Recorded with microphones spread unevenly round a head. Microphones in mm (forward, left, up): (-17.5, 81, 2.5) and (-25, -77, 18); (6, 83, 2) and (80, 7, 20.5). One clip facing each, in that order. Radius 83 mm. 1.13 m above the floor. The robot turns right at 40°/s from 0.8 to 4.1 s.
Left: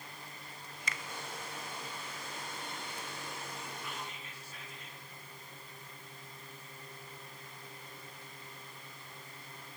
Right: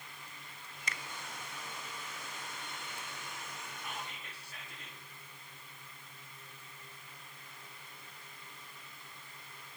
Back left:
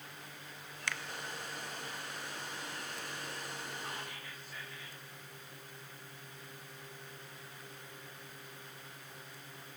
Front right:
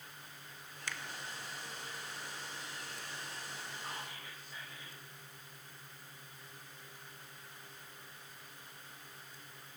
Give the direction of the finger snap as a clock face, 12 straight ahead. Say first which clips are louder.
Left 1 dB, back left 4 dB; 9 o'clock.